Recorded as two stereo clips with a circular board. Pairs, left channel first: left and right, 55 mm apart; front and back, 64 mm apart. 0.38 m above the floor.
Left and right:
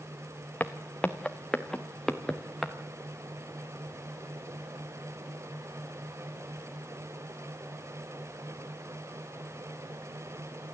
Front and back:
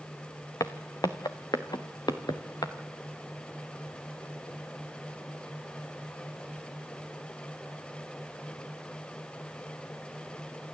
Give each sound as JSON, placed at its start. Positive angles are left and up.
{"t": 0.6, "sound": "footsteps", "azimuth_deg": 30, "distance_m": 1.4}